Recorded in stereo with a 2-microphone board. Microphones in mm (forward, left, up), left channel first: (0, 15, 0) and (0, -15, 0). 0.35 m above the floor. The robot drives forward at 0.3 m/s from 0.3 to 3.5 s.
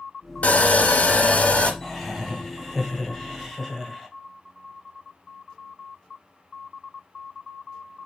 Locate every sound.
0.4 s sawing: 55° left (ahead or behind), 0.6 m; by 1.7 s 45° left (ahead or behind), 0.7 m
1.8 s laughter: 5° left (ahead or behind), 1.3 m; by 4.1 s 10° left (ahead or behind), 1.0 m